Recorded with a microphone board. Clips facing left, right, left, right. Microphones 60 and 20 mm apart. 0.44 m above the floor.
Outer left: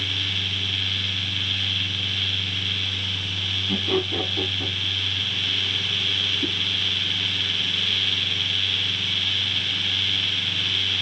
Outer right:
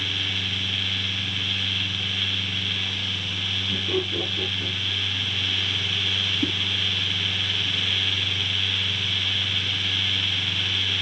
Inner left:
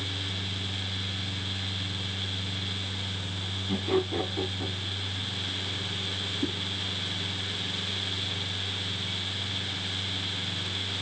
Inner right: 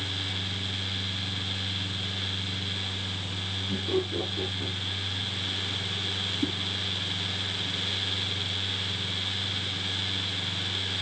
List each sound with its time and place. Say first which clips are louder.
3.7 s laughter: outer left 3 dB, inner left 2 dB; 60° left (ahead or behind), 2.5 m
6.4 s a whoosh: outer right 4 dB, inner right 1 dB; 20° right (ahead or behind), 1.8 m